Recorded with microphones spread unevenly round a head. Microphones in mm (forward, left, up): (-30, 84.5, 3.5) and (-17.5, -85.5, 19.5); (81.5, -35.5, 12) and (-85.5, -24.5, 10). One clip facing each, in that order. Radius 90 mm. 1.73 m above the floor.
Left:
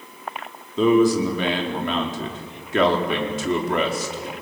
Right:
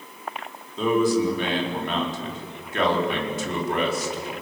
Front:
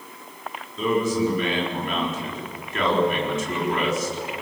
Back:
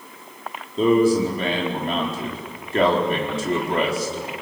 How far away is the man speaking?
About 4.5 m.